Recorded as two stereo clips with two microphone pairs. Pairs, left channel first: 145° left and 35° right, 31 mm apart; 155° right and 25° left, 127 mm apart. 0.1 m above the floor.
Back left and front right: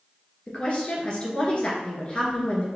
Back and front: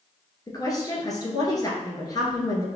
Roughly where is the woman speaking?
Behind.